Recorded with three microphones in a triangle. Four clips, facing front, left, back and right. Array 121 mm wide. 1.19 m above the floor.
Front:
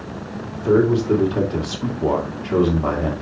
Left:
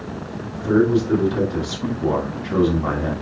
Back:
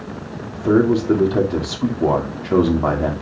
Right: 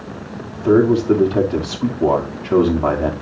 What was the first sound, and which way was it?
A man speaking, 135° right.